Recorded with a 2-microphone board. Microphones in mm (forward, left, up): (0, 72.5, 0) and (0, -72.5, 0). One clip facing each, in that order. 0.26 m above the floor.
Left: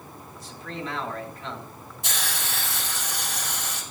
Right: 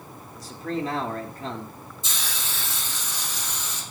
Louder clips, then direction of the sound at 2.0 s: Left 4 dB; 70° left (ahead or behind).